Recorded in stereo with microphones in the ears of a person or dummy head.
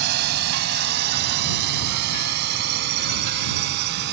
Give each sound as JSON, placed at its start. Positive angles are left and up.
{"t": 0.0, "sound": "a drone", "side_deg": -65}